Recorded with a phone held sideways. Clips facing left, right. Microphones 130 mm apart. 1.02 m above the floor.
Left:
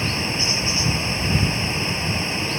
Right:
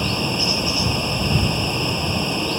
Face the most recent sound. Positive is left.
turn(degrees=-20)  # may be behind; listen again after turning